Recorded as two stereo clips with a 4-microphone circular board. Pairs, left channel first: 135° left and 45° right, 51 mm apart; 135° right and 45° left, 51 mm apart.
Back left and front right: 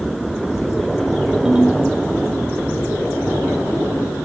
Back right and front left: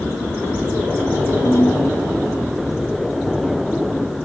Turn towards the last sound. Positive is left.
turn(degrees=-120)